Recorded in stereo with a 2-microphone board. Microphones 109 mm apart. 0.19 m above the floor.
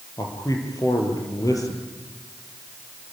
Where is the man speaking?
35° left (ahead or behind), 5 m.